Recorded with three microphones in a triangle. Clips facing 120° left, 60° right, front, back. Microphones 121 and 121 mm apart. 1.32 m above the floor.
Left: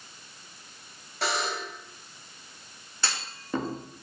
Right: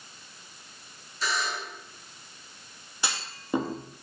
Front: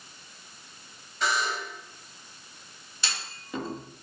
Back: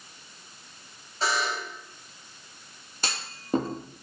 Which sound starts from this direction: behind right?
A clunk, at 3.0 s.